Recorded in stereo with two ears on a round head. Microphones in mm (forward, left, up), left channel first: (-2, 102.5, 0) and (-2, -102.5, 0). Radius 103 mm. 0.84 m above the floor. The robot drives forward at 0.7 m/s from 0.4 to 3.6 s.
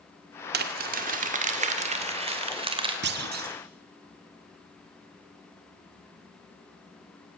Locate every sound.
0.5 s crumpling: 40° right (ahead or behind), 1.7 m; by 2.9 s 20° right (ahead or behind), 3 m
3.0 s a clunk: 45° right (ahead or behind), 1.9 m; by 3.6 s 40° right (ahead or behind), 2 m